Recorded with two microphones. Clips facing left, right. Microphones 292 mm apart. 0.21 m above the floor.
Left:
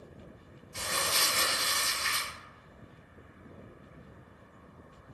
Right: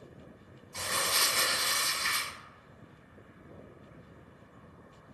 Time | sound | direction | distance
0.7 | crumpling | 10° left (ahead or behind) | 1.7 m